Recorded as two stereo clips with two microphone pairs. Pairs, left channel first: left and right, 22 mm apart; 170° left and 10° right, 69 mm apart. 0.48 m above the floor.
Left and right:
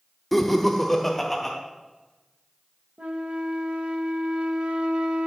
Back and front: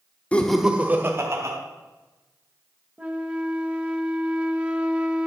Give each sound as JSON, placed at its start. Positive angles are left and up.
{"t": 0.3, "sound": "laughter", "azimuth_deg": 155, "distance_m": 0.7}
{"t": 3.0, "sound": "a flute", "azimuth_deg": -85, "distance_m": 0.7}